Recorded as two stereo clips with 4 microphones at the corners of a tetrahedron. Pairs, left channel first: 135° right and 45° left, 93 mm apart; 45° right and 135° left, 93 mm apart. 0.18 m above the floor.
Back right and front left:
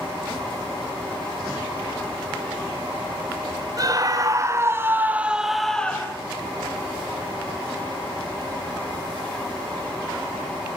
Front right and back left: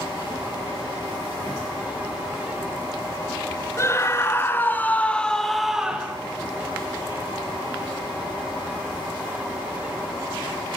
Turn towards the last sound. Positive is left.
turn(degrees=-175)